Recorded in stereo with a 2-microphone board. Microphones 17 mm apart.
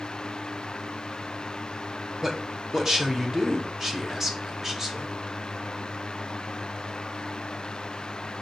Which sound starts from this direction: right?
A man speaking, at 2.2 s.